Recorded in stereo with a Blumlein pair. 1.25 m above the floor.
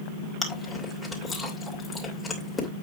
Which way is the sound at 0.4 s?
10° left.